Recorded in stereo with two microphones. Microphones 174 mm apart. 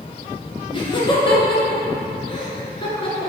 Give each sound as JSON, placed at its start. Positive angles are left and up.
{"t": 0.7, "sound": "laughter", "side_deg": 30, "distance_m": 1.5}